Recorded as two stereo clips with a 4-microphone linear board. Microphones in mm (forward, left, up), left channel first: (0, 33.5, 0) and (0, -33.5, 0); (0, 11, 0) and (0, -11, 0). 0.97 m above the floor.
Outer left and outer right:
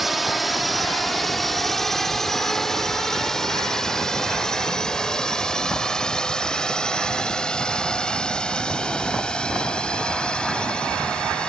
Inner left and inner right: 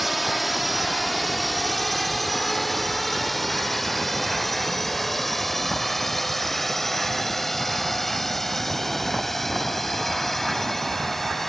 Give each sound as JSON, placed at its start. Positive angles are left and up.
{"t": 0.0, "sound": "a drone", "side_deg": 0}